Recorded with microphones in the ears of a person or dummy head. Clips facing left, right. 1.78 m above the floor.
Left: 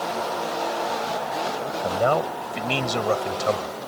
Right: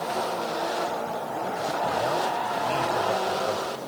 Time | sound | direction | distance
1.8 | a man speaking | 80° left | ?